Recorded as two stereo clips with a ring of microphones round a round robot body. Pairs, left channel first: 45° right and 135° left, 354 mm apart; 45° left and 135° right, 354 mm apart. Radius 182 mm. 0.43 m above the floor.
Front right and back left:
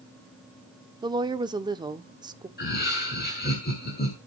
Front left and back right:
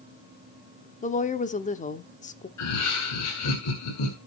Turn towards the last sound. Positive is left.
turn(degrees=15)